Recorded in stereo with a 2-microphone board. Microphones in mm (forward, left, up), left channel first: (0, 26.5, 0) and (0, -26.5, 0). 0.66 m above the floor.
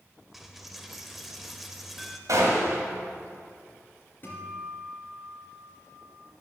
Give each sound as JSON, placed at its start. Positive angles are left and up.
{"t": 0.3, "sound": "a dropped coin", "side_deg": -5, "distance_m": 0.7}
{"t": 2.3, "sound": "a gunshot", "side_deg": -85, "distance_m": 1.8}
{"t": 4.2, "sound": "a guitar", "side_deg": 40, "distance_m": 2.5}